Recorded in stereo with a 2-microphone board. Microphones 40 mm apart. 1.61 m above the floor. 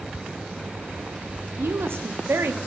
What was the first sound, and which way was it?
A woman speaking, 80° right.